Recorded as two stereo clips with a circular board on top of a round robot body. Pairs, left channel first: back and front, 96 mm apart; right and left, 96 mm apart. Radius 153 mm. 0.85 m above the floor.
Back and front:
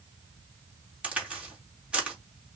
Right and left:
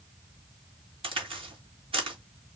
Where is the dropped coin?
No dropped coin in this recording.